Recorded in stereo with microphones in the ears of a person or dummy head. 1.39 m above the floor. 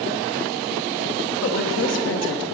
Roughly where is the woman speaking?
Left.